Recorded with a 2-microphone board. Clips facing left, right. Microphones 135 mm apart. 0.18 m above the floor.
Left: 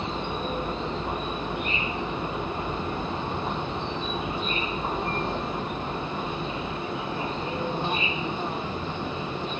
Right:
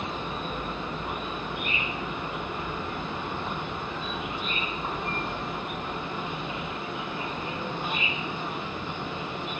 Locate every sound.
0.0 s an insect: 30° left (ahead or behind)